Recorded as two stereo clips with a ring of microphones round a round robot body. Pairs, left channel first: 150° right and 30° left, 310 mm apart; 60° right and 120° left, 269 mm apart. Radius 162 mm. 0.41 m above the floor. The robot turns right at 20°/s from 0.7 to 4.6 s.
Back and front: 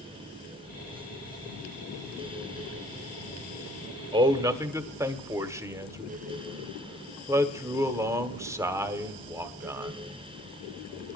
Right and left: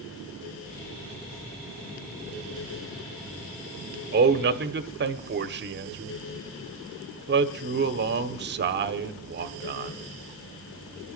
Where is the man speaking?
95° left, 1.1 m; by 10.0 s 105° left, 1.1 m.